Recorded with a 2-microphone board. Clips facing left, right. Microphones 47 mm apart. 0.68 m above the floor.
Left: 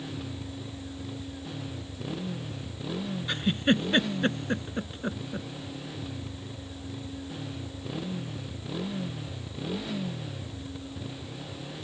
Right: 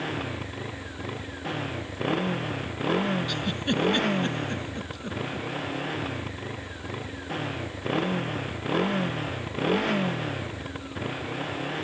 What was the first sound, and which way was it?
A motorcycle, 60° right (ahead or behind).